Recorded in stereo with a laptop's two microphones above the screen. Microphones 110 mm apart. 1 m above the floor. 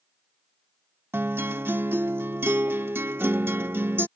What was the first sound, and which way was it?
A guitar, 20° right (ahead or behind).